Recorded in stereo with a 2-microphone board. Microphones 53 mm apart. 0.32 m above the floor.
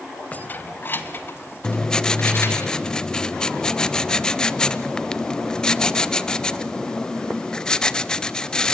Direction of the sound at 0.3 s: 30° left (ahead or behind).